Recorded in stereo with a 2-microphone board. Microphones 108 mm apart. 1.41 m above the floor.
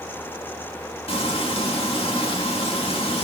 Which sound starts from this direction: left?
Frying, at 1.1 s.